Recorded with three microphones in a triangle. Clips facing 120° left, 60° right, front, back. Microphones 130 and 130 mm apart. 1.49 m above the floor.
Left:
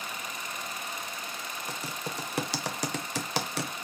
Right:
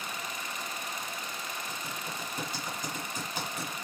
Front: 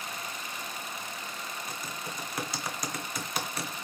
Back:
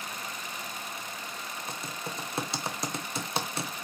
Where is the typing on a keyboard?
120° left, 0.5 m.